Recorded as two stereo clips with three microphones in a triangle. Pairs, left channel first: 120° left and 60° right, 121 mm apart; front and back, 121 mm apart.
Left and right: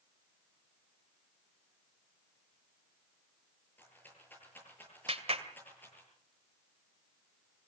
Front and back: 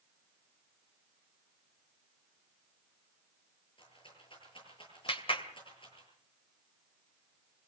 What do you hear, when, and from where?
3.8 s a rattle: 45° left, 9 m
5.1 s a clap: 35° right, 2 m